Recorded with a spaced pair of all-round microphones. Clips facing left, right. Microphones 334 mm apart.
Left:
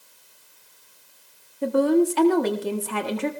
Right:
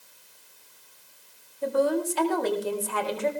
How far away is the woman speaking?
About 1.9 m.